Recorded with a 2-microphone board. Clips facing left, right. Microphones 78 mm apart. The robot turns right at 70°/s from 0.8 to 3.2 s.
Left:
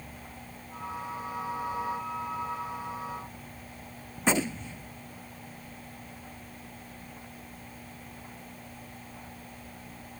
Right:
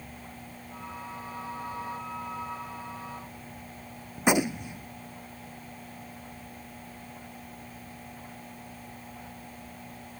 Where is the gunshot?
15° right (ahead or behind).